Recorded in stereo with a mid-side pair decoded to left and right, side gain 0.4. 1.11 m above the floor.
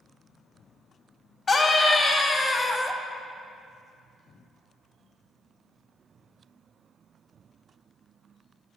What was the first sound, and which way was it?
A scream, 45° left.